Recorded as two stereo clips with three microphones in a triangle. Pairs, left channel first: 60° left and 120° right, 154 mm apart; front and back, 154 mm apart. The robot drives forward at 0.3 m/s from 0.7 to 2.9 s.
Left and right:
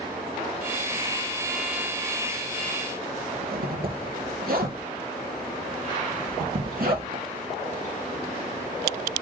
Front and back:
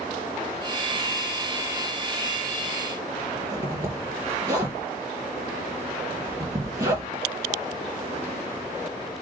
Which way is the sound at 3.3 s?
115° right.